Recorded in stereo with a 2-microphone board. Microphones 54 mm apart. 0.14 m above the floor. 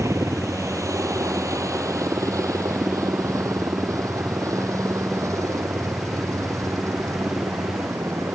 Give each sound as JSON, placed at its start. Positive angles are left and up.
{"t": 0.0, "sound": "a helicopter", "side_deg": -65}